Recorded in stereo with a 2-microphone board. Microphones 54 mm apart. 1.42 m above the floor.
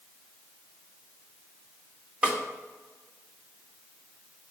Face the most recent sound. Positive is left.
turn(degrees=-20)  # may be behind; listen again after turning